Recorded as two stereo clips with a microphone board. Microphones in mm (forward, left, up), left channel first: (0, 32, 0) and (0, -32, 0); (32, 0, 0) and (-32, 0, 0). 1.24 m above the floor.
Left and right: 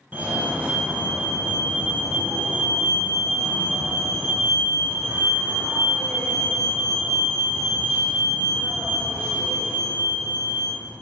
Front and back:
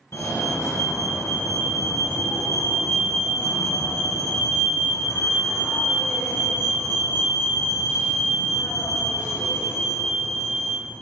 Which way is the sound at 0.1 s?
30° right.